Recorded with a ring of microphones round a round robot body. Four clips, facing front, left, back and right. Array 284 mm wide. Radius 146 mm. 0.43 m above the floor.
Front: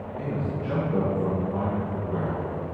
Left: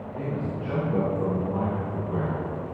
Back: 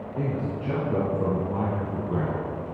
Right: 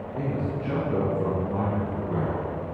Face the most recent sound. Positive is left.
turn(degrees=-145)